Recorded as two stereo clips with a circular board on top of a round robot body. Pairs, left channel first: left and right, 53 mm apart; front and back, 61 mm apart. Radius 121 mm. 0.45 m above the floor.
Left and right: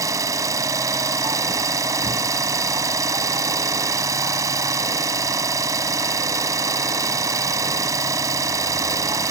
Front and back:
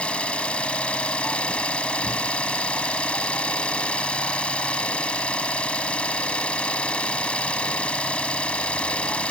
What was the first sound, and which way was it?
An engine running, 70° right.